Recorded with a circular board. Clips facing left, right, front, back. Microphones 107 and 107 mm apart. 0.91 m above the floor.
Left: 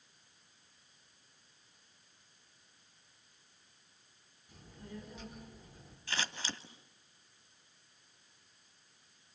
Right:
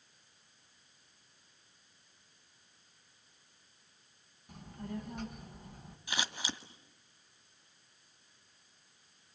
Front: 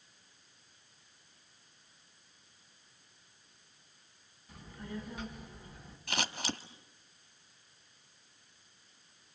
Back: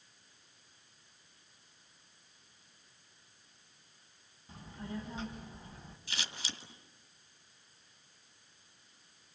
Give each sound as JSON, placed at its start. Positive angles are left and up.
{"t": 4.5, "sound": "a child speaking", "azimuth_deg": -120, "distance_m": 5.0}
{"t": 6.1, "sound": "scissors", "azimuth_deg": -15, "distance_m": 2.0}